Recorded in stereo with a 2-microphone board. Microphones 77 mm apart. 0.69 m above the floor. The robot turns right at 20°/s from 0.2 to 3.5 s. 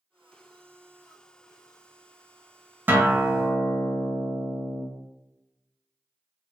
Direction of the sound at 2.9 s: 25° right (ahead or behind).